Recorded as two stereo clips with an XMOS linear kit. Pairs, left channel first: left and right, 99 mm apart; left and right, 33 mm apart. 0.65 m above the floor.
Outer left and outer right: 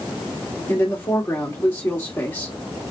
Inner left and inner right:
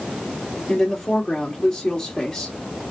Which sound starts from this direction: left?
A woman speaking, at 0.7 s.